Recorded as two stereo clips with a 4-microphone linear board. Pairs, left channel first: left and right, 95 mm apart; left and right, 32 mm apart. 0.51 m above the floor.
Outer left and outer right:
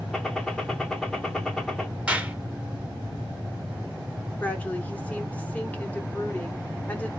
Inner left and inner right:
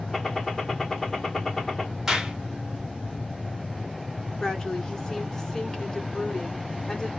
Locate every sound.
0.1 s a gunshot: 5° left (ahead or behind), 1.0 m
2.1 s a clap: 15° right (ahead or behind), 1.0 m
4.4 s a woman speaking: 15° left (ahead or behind), 1.2 m